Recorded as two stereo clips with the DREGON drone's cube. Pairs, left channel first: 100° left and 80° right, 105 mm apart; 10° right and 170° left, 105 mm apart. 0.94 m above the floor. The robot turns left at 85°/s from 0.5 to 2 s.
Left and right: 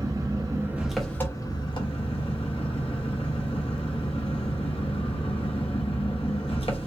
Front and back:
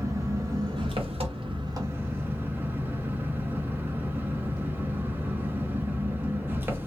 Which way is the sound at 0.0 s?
130° right.